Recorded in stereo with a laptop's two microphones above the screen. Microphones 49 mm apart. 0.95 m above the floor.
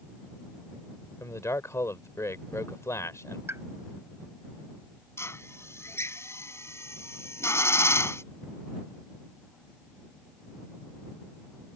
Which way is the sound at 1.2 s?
85° left.